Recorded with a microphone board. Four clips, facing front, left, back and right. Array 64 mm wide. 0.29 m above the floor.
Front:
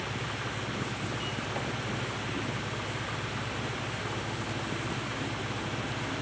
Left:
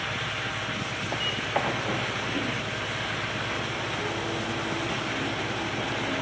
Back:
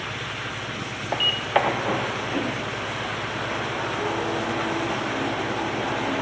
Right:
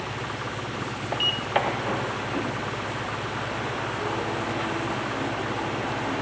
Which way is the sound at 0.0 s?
95° right.